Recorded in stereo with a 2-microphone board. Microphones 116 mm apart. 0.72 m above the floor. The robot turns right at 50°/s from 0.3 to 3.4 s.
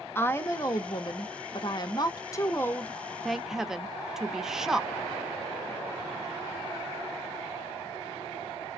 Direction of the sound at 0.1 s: 30° left.